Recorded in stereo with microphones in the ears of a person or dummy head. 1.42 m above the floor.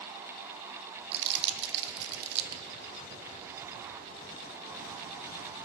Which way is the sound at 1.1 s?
65° right (ahead or behind).